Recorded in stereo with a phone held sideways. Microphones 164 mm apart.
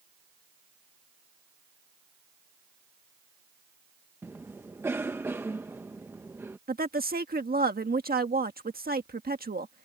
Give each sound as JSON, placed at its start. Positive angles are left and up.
{"t": 4.2, "sound": "a cough", "side_deg": -15}
{"t": 6.7, "sound": "a woman speaking", "side_deg": -70}